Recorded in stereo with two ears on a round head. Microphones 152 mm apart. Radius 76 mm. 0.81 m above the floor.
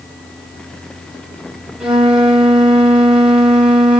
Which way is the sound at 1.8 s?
5° right (ahead or behind).